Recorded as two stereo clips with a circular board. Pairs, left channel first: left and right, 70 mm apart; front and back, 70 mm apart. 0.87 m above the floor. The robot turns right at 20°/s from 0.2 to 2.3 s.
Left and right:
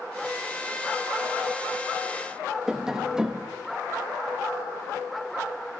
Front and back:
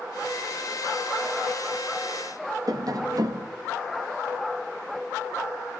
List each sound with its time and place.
2.7 s tapping: 170° right, 0.9 m